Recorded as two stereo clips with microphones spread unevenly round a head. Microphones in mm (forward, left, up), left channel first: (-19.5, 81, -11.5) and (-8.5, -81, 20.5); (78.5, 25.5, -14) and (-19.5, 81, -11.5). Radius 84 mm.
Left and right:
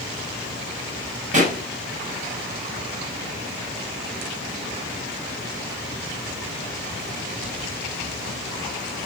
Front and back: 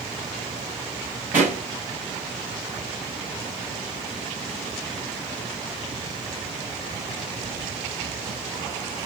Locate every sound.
1.3 s a pop: 130° right, 7.5 m